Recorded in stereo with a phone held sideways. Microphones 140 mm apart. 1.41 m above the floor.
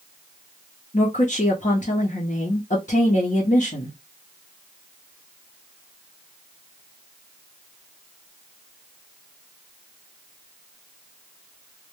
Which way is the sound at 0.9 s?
65° left (ahead or behind).